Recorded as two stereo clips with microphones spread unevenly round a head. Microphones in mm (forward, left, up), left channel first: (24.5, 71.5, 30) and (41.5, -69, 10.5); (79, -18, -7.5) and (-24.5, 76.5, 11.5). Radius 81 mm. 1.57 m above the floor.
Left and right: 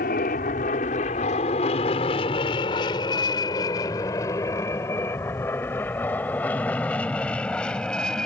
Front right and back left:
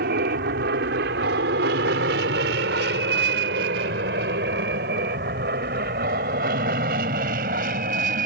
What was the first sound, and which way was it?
An aircraft, 135° left.